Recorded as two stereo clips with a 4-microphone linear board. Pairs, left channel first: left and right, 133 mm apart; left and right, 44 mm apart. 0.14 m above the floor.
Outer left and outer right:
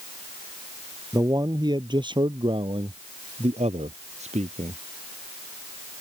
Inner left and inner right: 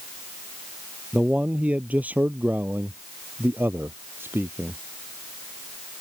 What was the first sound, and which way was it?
A man speaking, 25° right (ahead or behind).